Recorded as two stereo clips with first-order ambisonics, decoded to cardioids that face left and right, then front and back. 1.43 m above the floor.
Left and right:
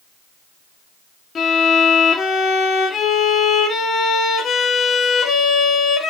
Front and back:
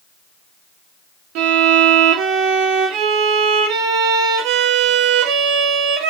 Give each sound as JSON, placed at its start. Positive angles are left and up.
{"t": 1.4, "sound": "a violin", "azimuth_deg": 155, "distance_m": 2.0}